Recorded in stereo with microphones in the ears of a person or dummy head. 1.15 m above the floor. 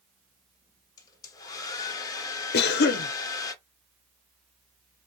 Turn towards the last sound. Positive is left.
turn(degrees=55)  # may be behind; listen again after turning